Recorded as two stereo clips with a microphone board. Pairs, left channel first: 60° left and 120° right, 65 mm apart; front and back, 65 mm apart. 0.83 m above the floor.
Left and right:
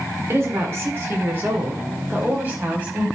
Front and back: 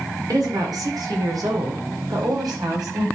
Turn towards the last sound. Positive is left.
turn(degrees=175)